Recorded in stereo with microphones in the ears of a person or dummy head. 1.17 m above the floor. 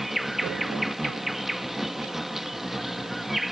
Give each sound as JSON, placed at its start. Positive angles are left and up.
{"t": 0.0, "sound": "an insect", "side_deg": 0}